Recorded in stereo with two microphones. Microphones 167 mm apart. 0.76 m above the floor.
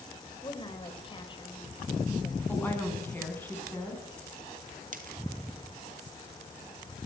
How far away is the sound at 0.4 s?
About 3.5 m.